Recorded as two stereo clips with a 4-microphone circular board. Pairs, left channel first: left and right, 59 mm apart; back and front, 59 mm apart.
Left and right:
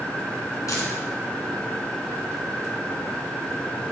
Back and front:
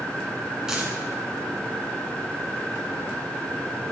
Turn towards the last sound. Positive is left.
turn(degrees=80)